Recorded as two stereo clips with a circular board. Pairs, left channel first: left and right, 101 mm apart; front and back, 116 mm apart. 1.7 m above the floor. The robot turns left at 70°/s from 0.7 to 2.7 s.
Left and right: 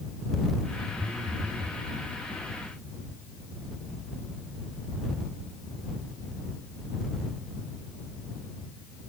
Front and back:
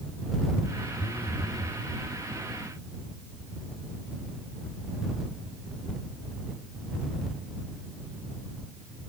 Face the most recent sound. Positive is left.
turn(degrees=-140)